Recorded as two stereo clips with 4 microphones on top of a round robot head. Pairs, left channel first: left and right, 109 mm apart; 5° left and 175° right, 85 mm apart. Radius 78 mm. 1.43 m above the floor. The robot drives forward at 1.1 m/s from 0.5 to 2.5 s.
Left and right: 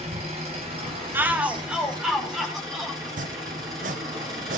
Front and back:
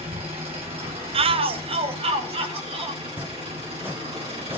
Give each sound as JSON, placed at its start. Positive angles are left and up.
{"t": 0.0, "sound": "an engine running", "azimuth_deg": -140, "distance_m": 3.5}
{"t": 1.1, "sound": "a shout", "azimuth_deg": -165, "distance_m": 0.7}
{"t": 3.0, "sound": "chopping", "azimuth_deg": -100, "distance_m": 0.7}